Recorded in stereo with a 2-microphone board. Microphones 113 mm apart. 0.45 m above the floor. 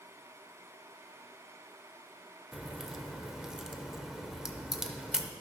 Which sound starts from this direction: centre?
A crack, at 2.5 s.